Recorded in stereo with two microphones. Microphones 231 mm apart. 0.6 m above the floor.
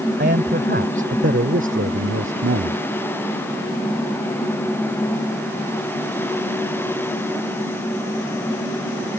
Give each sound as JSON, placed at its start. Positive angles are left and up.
{"t": 0.2, "sound": "a man speaking", "side_deg": -50}